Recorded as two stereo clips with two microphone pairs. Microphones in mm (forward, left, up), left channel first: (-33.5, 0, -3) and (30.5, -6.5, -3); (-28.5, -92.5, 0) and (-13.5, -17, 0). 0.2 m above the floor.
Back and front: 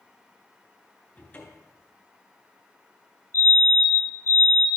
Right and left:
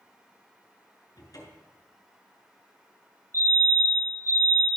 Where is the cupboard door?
125° right, 3.5 m.